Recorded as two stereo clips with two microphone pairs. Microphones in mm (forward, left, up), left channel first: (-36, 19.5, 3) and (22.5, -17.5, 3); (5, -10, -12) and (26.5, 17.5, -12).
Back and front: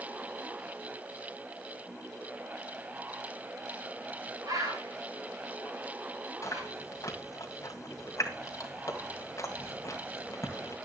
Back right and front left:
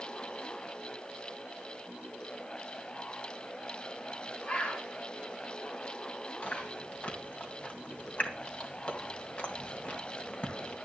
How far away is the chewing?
About 2 m.